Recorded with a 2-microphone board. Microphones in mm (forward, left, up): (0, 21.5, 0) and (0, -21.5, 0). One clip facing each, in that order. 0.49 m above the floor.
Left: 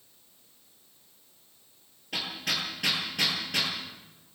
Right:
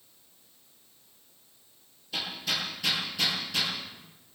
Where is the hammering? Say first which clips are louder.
Even; 60° left (ahead or behind), 10 m.